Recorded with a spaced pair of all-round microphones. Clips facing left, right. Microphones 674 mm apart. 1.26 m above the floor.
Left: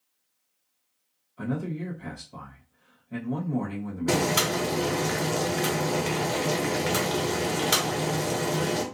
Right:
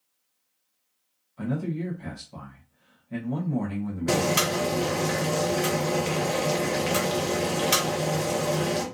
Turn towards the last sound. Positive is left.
turn(degrees=-5)  # may be behind; listen again after turning